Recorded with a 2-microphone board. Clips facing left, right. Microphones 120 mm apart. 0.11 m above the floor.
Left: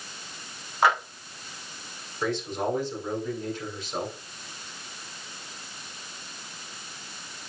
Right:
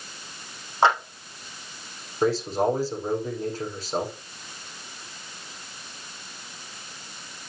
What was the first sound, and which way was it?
A clap, 30° right (ahead or behind).